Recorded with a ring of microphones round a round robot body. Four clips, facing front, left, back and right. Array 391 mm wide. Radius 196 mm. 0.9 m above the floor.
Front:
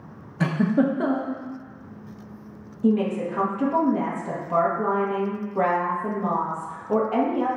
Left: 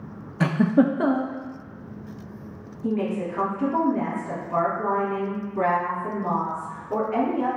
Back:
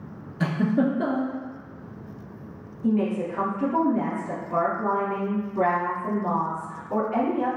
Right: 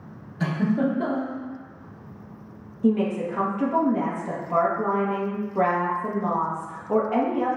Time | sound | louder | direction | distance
0.4 | a giggle | left 4 dB, front 2 dB | 70° left | 0.5 m
2.8 | a woman speaking | right 3 dB, front 2 dB | 40° right | 1.3 m